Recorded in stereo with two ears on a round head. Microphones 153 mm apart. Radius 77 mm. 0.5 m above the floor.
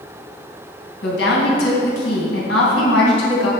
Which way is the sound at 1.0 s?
75° left (ahead or behind).